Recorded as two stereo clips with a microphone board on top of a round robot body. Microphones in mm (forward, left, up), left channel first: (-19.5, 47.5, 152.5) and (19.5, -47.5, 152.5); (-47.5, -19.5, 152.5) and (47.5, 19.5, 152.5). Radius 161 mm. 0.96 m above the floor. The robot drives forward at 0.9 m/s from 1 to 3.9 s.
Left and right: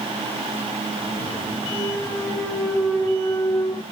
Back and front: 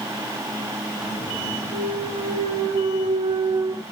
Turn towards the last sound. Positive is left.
turn(degrees=70)